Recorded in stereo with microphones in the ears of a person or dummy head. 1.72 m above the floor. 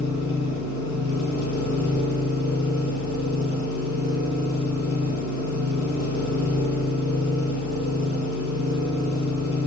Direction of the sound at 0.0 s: 75° left (ahead or behind).